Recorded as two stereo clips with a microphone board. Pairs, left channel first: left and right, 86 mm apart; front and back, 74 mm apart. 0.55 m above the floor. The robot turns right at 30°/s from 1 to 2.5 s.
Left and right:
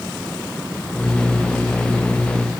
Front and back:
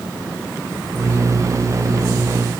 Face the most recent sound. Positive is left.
No sound to turn to.